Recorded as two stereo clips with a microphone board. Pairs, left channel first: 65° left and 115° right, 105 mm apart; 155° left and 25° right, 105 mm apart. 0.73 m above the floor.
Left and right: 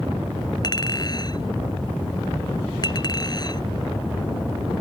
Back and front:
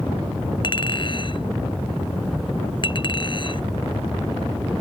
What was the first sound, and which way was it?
A clink, 115° left.